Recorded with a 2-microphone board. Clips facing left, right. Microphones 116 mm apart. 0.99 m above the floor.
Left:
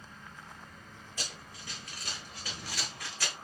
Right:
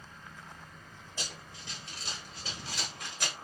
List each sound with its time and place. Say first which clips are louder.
1.2 s running footsteps: right 1 dB; 25° right (ahead or behind), 1.5 m; by 3.4 s 20° right (ahead or behind), 1.0 m